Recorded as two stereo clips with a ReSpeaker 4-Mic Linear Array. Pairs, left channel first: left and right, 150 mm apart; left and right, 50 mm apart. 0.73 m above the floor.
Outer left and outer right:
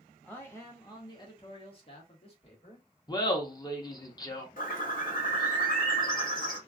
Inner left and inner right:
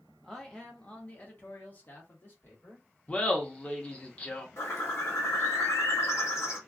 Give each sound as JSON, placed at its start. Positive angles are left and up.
{"t": 0.2, "sound": "a man speaking", "side_deg": 10, "distance_m": 1.2}
{"t": 3.1, "sound": "laughter", "side_deg": 25, "distance_m": 1.0}
{"t": 4.6, "sound": "a bird", "side_deg": 65, "distance_m": 1.2}